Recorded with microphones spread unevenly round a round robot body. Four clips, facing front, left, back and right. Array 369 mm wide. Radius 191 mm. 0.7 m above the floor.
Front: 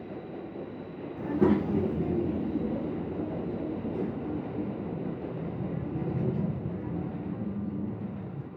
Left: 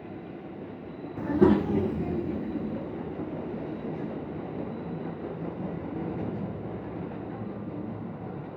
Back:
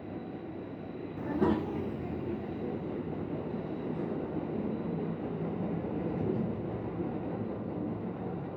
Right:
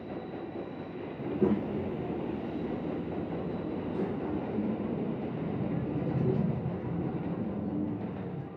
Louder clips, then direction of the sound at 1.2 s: Left 7 dB, front 4 dB; 80° left.